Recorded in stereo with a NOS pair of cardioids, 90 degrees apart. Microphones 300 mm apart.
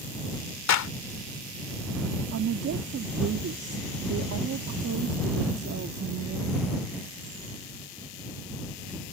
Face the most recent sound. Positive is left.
turn(degrees=-55)